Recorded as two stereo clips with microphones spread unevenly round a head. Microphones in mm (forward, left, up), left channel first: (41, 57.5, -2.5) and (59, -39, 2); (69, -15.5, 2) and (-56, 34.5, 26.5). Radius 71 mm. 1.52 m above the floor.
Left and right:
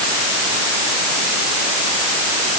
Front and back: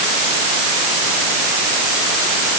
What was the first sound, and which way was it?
Only background noise.